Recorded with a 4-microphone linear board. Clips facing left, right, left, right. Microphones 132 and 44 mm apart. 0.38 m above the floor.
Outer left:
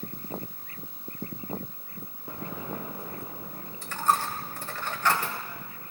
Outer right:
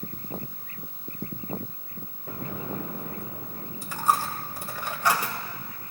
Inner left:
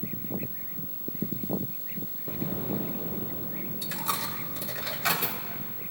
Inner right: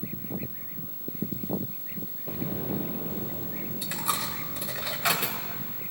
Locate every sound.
2.3 s an explosion: 70° right (ahead or behind), 3 m
3.8 s a dropped coin: 10° right (ahead or behind), 0.8 m